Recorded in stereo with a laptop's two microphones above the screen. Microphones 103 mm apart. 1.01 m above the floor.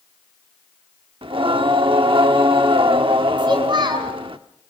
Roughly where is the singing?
Right.